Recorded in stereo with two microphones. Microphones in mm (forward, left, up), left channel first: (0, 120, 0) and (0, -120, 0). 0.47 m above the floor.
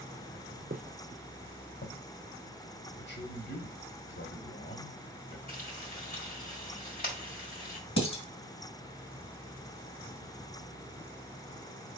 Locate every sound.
0.7 s footsteps: 45° right (ahead or behind), 0.6 m; by 2.0 s 65° left (ahead or behind), 1.5 m
3.0 s a man speaking: 50° left (ahead or behind), 1.4 m
5.5 s frying: 40° left (ahead or behind), 2.5 m
8.0 s dishes clattering: 70° left (ahead or behind), 2.0 m